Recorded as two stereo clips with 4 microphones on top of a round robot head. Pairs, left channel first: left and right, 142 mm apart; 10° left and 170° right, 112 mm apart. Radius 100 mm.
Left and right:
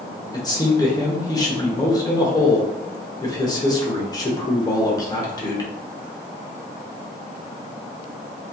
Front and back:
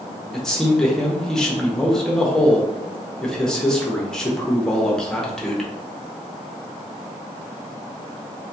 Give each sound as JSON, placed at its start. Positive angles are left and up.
{"t": 0.3, "sound": "a man speaking", "azimuth_deg": 90, "distance_m": 0.8}